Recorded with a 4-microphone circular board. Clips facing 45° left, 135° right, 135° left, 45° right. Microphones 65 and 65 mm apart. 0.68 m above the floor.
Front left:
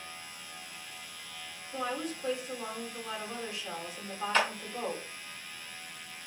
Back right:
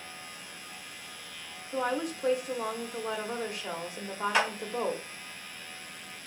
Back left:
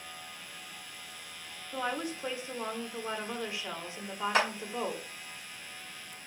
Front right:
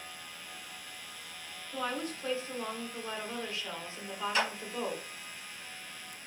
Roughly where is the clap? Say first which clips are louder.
Back right 1 dB, back left 3 dB; behind left.